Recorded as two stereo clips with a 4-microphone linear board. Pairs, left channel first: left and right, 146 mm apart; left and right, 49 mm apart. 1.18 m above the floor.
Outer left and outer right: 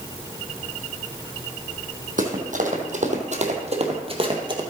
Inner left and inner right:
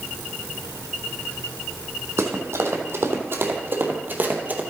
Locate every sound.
2.2 s running footsteps: 65° right (ahead or behind), 2.5 m; by 4.6 s 30° right (ahead or behind), 1.9 m